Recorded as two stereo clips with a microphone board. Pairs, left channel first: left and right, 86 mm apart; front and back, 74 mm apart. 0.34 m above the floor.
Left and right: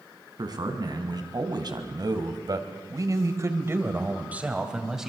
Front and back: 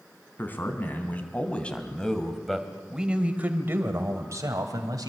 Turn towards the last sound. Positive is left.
turn(degrees=-175)